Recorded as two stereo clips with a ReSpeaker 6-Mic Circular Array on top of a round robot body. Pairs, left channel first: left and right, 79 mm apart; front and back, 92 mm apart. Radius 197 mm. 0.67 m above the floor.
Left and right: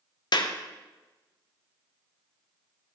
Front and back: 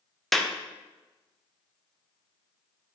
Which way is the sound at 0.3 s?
90° left.